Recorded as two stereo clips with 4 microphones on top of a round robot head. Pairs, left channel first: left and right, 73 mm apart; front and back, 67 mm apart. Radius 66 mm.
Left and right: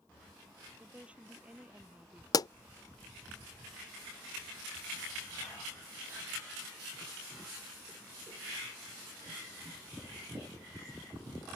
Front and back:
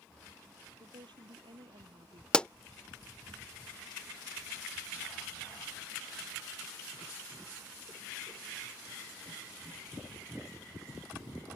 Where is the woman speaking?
165° right.